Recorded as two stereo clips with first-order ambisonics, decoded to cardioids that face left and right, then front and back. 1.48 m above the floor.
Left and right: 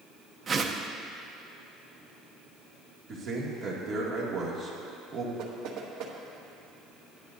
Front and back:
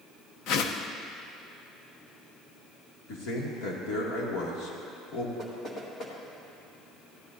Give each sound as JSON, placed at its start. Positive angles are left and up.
{"t": 0.5, "sound": "a whoosh", "azimuth_deg": -25, "distance_m": 0.6}
{"t": 3.1, "sound": "a man speaking", "azimuth_deg": -30, "distance_m": 2.0}
{"t": 5.4, "sound": "knocking", "azimuth_deg": -65, "distance_m": 1.7}